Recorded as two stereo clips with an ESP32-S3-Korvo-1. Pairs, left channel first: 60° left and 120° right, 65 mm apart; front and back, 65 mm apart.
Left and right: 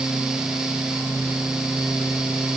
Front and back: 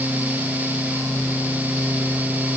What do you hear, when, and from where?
Only background noise.